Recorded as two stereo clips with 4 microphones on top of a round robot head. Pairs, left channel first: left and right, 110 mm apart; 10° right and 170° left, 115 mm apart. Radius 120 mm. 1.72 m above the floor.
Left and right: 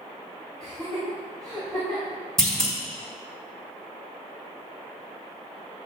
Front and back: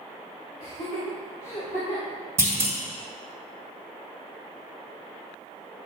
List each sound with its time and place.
0.6 s laughter: 5° left, 3.5 m
2.4 s a clunk: straight behind, 1.8 m